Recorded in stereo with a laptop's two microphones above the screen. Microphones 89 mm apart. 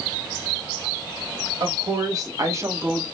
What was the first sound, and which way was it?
A woman speaking, 45° right (ahead or behind).